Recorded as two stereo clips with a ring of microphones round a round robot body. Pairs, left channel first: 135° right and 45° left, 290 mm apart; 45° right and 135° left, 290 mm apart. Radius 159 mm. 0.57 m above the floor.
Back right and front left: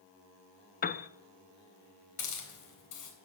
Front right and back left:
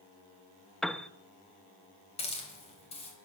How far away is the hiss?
About 3.5 m.